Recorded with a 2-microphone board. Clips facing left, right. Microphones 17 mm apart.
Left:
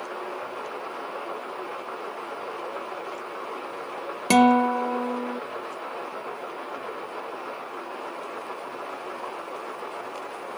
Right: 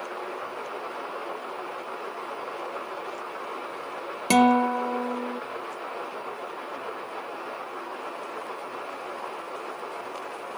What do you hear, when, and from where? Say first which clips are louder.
4.3 s a guitar: left 2 dB; centre (ahead or behind)